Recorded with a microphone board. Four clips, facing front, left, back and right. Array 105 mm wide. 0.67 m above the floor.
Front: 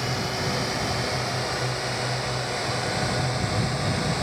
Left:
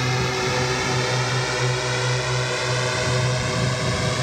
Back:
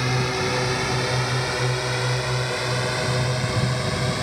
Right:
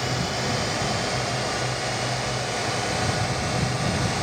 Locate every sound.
0.0 s a drone: 125° left; by 4.2 s 115° left